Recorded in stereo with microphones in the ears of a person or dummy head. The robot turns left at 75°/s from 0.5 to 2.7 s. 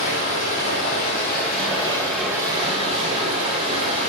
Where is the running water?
125° left, 1.7 m; by 4.1 s 40° right, 1.7 m.